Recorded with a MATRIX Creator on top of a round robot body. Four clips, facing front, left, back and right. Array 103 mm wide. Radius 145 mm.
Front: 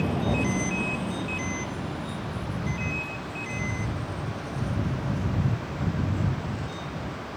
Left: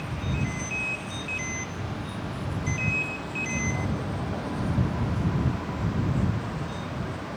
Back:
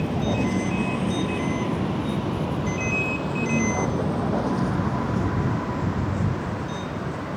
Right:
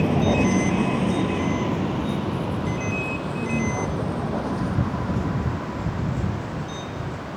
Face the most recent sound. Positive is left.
turn(degrees=-170)